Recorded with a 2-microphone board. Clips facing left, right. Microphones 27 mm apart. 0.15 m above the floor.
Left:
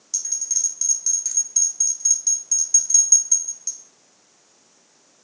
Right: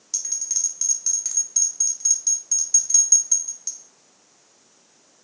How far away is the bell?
About 0.8 m.